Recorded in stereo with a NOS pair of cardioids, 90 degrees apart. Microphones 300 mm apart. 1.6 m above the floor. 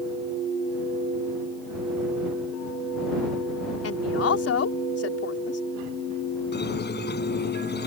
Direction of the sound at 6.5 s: 35° left.